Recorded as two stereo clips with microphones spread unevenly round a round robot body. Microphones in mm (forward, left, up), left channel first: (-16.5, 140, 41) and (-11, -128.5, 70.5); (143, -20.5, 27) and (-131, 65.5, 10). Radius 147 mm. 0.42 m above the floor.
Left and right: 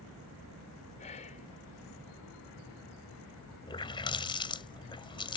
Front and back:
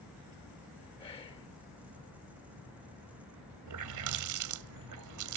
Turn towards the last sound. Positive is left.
turn(degrees=160)